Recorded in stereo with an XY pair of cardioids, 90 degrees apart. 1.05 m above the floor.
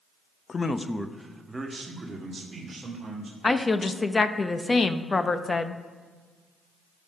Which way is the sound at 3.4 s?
35° left.